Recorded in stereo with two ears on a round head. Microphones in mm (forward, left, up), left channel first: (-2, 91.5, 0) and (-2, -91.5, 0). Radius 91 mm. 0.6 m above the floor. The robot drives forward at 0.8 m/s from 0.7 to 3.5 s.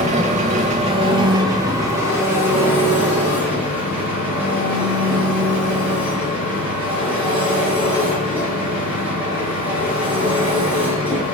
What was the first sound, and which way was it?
An engine running, 30° right (ahead or behind).